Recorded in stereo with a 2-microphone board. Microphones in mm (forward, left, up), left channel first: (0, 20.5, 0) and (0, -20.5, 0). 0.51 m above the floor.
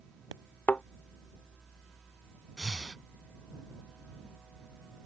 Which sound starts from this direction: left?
A thud, at 0.7 s.